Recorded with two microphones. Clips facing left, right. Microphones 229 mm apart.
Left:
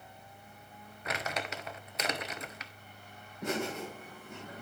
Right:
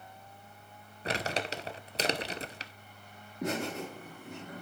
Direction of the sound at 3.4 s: 70° right (ahead or behind).